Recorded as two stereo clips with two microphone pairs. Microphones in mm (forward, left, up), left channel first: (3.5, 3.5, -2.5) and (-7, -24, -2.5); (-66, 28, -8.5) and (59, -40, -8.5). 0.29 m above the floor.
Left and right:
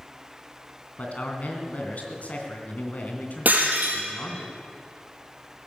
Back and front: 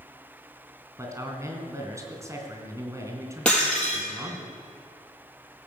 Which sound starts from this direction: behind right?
Breaking glass, at 3.5 s.